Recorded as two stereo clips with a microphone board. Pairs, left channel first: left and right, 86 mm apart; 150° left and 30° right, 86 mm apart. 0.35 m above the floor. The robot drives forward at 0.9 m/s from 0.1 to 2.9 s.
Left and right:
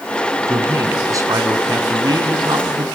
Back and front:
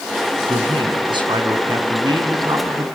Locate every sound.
0.5 s a man speaking: 35° right, 4 m; by 2.9 s 70° right, 2.5 m